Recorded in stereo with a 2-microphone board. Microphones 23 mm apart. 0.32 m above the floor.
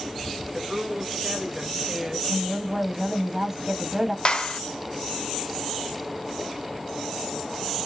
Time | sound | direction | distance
0.5 | a woman speaking | 25° right (ahead or behind) | 1.2 m
2.3 | a woman speaking | 25° right (ahead or behind) | 1.4 m
4.2 | a clap | 40° left (ahead or behind) | 1.0 m